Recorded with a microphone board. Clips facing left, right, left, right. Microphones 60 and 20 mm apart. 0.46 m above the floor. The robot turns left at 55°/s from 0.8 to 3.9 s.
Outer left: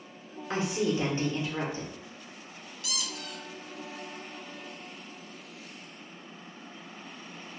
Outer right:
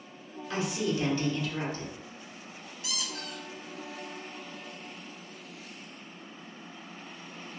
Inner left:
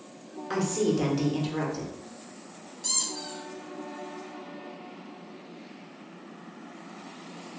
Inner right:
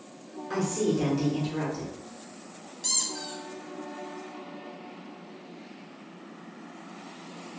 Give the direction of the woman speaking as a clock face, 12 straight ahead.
9 o'clock.